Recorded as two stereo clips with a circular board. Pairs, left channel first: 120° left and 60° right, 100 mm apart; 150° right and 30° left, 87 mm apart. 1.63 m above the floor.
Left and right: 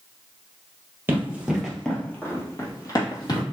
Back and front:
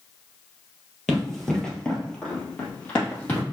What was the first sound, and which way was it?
Running footsteps, 60° right.